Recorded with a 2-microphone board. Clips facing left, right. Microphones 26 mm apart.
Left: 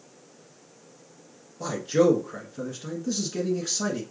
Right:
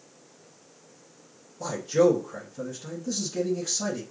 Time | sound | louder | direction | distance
1.6 | a man speaking | even | 25° left (ahead or behind) | 1.1 m